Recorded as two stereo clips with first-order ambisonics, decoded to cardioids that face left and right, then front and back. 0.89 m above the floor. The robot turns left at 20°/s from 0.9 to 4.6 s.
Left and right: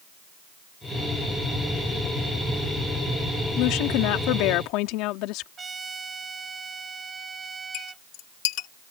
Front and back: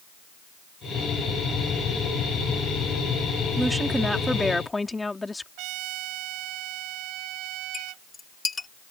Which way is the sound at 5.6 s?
160° right.